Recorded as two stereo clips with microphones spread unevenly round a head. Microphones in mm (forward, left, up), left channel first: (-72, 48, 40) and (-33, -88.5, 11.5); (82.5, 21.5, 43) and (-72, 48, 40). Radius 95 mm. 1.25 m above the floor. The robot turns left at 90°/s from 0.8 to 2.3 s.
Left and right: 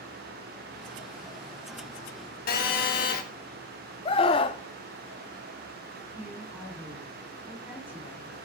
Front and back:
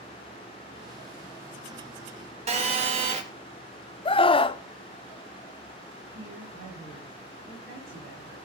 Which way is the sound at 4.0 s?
45° left.